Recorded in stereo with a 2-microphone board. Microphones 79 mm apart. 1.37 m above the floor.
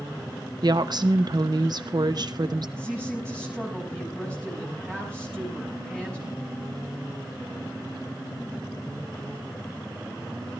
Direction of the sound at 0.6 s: 55° right (ahead or behind).